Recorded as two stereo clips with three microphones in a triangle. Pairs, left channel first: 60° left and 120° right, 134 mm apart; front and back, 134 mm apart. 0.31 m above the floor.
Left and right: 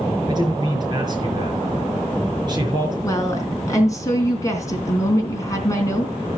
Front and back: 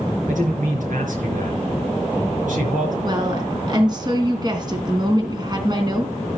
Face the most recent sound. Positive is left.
turn(degrees=125)